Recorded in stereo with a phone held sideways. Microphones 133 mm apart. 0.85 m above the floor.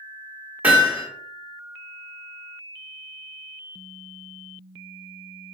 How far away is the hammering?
About 1.4 m.